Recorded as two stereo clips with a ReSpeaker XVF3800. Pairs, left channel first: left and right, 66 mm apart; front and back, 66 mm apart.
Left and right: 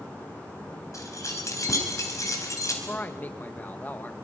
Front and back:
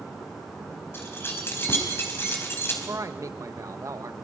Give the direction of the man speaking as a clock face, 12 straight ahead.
7 o'clock.